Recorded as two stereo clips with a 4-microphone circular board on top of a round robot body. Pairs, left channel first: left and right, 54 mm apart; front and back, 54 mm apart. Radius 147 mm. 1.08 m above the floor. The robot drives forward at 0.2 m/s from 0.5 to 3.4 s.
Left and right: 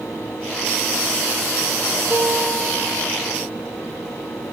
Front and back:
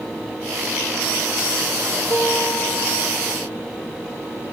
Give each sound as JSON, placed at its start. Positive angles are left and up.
{"t": 2.1, "sound": "a piano", "azimuth_deg": -155, "distance_m": 1.1}